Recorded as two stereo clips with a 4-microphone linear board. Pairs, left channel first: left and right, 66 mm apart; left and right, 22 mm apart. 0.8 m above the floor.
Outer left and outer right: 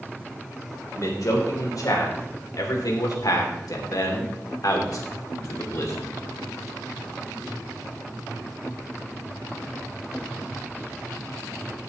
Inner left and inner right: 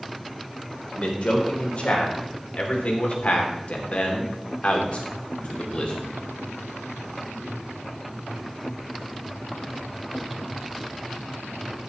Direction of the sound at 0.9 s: 60° left (ahead or behind).